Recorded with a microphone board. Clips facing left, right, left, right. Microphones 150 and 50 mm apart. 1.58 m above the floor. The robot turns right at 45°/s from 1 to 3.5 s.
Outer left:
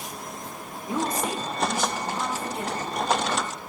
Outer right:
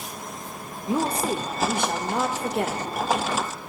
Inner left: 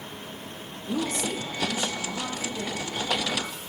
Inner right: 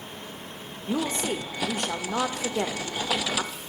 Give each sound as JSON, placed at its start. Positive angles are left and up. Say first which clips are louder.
{"t": 0.9, "sound": "a woman speaking", "louder": "outer right 3 dB, inner right 1 dB", "azimuth_deg": -155, "distance_m": 0.6}